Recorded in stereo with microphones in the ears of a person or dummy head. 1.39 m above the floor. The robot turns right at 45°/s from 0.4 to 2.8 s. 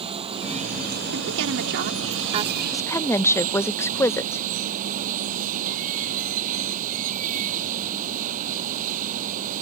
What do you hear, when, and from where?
0.0 s running water: 150° right; by 9.6 s 45° right
1.1 s a woman speaking: 90° right; by 2.6 s 20° right
2.7 s a woman speaking: 20° left (ahead or behind); by 4.4 s 15° left (ahead or behind)